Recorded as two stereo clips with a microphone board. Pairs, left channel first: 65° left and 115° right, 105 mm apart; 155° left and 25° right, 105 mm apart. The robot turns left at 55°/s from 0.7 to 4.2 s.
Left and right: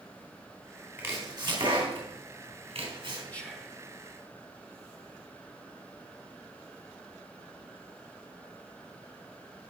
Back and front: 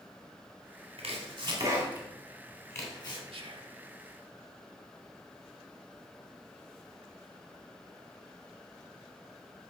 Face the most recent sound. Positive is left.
turn(degrees=-55)